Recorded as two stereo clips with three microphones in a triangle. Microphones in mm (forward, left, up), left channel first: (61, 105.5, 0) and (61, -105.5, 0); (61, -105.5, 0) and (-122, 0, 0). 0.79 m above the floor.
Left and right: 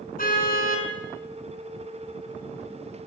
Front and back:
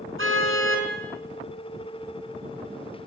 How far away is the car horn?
About 5.5 m.